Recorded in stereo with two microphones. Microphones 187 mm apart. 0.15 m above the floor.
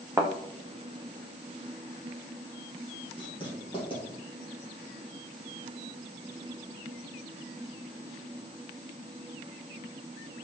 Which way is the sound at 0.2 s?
10° right (ahead or behind).